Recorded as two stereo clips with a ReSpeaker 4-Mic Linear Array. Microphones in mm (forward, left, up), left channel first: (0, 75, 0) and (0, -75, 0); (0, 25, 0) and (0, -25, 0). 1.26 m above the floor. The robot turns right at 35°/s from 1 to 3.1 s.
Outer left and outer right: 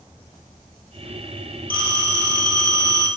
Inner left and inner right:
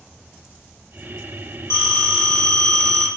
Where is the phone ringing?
85° left, 1.3 m; by 3.1 s 135° left, 1.3 m.